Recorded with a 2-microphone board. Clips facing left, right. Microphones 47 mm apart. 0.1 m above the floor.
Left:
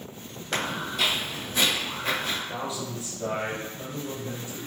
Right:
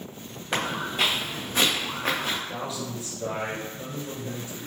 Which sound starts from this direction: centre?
A man speaking, at 2.5 s.